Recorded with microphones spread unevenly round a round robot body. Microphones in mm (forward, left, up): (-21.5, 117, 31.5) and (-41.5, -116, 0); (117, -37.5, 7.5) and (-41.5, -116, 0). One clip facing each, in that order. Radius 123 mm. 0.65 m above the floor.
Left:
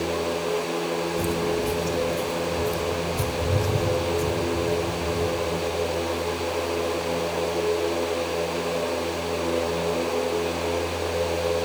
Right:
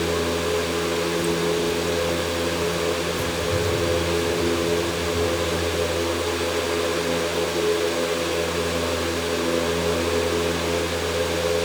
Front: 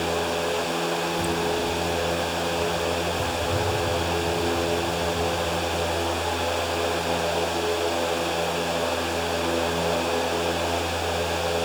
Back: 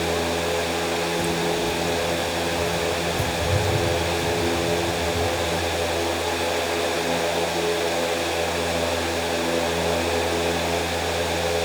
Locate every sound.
1.2 s footsteps: 110° left, 0.6 m; by 7.2 s 155° left, 4 m